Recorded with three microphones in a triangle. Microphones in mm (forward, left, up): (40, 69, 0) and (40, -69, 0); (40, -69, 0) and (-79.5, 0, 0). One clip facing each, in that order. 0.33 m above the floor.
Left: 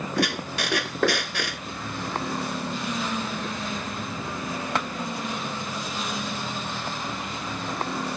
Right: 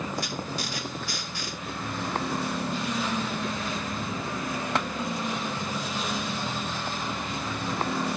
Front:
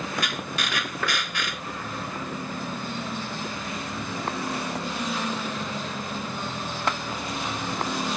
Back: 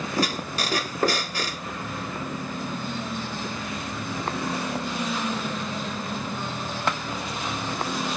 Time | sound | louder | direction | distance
0.2 | a squeak | left 5 dB, back 4 dB | 95° left | ?